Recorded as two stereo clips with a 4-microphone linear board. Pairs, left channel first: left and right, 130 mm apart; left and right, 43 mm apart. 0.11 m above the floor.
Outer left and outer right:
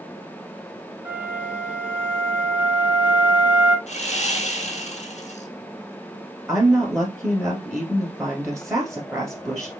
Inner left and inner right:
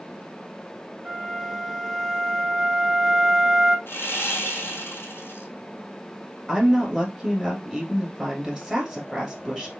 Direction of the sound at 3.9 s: 60° left (ahead or behind).